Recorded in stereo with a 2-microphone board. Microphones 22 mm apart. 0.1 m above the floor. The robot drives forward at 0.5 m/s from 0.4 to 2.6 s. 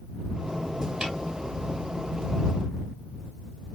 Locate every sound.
1.0 s a snare drum: 40° right (ahead or behind), 2.5 m; by 1.1 s 35° right (ahead or behind), 2.5 m